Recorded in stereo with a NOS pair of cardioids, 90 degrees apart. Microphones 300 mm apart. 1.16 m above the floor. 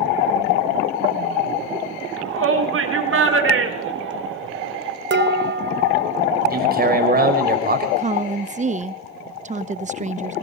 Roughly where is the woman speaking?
Ahead right.